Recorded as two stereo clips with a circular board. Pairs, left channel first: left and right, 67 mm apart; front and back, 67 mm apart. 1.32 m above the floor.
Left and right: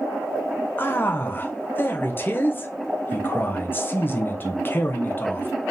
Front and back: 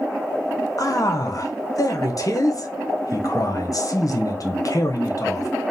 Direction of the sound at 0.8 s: 30° left.